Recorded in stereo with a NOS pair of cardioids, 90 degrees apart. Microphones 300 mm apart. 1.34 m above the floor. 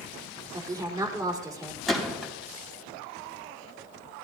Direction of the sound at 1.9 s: Straight ahead.